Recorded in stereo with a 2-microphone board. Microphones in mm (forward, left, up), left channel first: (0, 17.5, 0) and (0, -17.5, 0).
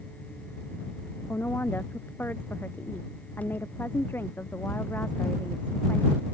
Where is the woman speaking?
75° left (ahead or behind).